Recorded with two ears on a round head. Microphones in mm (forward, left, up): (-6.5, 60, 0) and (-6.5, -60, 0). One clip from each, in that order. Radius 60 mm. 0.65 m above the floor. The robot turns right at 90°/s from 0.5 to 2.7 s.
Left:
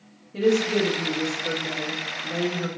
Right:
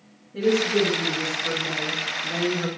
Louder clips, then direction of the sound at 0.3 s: Even; 100° left.